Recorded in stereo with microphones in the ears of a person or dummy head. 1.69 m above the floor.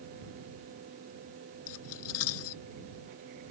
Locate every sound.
1.7 s cutlery clinking: 85° left